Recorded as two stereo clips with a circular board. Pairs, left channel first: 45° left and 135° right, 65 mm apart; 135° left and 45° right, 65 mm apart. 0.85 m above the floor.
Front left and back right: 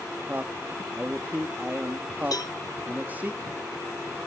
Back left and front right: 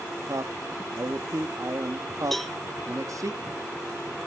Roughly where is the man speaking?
Right.